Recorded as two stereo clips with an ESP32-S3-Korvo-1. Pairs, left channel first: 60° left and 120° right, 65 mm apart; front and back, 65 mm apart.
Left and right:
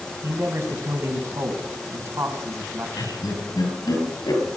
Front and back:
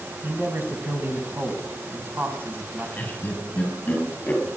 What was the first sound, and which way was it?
A man speaking, 130° right.